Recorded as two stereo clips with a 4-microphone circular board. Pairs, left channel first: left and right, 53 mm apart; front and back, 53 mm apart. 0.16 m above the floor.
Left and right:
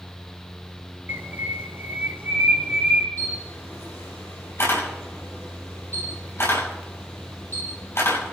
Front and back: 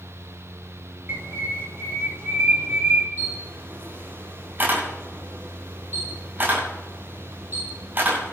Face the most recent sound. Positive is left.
turn(degrees=130)